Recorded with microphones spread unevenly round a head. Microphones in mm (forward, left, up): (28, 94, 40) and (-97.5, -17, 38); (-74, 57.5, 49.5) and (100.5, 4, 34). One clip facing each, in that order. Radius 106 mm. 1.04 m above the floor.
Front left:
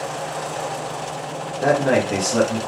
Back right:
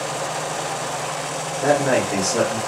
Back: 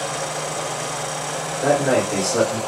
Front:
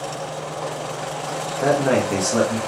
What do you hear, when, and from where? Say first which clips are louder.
1.6 s a man speaking: front left 1 dB, even; 10° right, 1.9 m